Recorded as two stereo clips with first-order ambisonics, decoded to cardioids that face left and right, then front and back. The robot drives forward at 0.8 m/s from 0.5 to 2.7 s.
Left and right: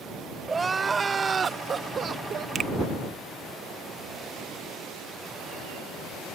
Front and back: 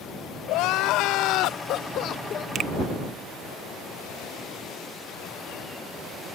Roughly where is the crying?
Ahead.